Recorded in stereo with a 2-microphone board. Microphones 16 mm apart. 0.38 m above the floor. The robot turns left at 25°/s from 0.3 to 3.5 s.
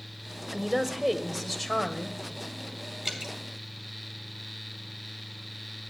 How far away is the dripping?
About 2.5 m.